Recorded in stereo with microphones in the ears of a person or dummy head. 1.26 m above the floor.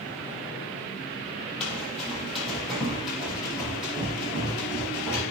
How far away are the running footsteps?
About 2.5 m.